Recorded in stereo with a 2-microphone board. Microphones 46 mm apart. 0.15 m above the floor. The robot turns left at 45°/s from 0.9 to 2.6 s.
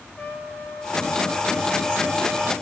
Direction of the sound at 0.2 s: 30° left.